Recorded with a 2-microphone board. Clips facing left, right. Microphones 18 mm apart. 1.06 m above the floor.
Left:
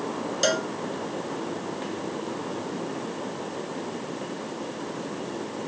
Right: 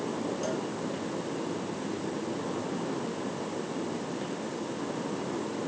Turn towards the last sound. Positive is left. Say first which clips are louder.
# left 8 dB
turn(degrees=75)  # may be behind; listen again after turning